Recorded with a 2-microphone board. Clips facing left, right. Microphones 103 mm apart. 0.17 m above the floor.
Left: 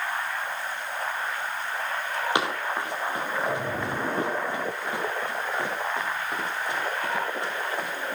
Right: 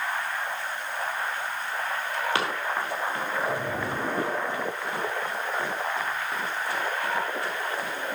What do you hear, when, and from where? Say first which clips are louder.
2.4 s running footsteps: left 1 dB; 15° left (ahead or behind), 4.5 m; by 7.9 s 20° left (ahead or behind), 10 m